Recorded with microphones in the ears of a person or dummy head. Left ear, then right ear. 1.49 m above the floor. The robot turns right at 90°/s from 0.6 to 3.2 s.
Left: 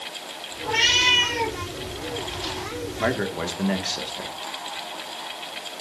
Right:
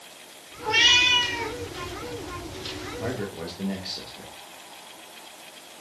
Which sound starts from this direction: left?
A man speaking, at 3.0 s.